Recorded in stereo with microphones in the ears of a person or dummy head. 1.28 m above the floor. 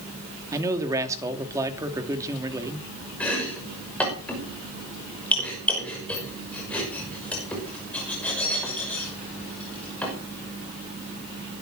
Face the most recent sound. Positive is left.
turn(degrees=10)  # may be behind; listen again after turning